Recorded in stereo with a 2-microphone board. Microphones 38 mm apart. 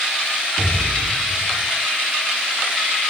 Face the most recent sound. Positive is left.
turn(degrees=50)  # may be behind; listen again after turning